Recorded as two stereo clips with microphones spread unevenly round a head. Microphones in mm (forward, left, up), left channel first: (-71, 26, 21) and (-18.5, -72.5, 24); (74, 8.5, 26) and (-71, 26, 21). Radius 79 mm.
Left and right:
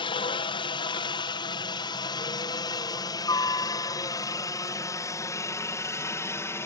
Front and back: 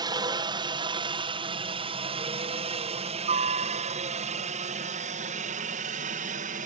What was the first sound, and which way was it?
A helicopter, 125° left.